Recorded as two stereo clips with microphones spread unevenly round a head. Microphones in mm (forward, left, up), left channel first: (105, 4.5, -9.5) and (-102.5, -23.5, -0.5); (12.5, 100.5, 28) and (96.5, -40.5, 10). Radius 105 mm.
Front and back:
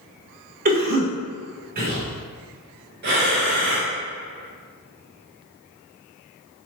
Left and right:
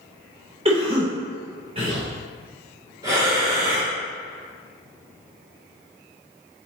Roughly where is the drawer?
I don't hear a drawer.